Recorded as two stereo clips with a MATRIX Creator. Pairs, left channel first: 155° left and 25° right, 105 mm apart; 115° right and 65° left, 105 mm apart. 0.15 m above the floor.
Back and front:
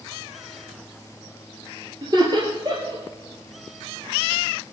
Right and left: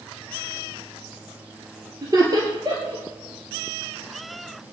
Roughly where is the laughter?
Ahead.